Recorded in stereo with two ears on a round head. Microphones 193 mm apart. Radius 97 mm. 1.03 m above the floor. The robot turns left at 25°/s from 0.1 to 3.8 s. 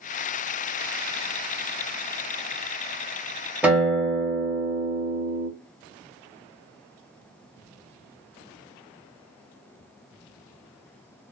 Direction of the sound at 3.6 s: 5° right (ahead or behind).